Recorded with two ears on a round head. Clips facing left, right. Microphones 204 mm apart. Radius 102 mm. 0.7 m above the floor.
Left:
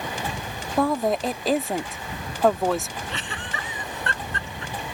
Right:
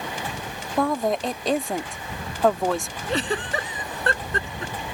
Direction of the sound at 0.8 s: Centre (ahead or behind).